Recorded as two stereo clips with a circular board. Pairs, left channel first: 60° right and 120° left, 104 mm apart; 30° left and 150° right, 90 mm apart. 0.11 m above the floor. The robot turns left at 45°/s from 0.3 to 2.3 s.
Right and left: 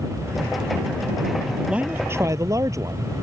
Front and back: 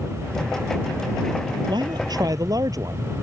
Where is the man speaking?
160° right; by 3.1 s 175° left.